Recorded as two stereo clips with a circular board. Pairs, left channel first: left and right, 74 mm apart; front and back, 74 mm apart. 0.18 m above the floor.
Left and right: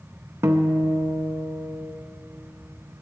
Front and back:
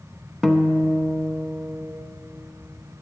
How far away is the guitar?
About 0.6 m.